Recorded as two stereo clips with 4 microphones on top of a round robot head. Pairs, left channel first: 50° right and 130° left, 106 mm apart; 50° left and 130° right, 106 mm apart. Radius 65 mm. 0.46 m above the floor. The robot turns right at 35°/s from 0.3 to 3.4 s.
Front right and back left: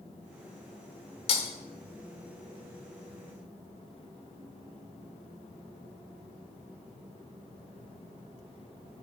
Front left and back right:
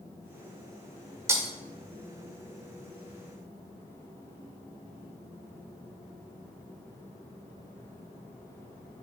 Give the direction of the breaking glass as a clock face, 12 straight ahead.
2 o'clock.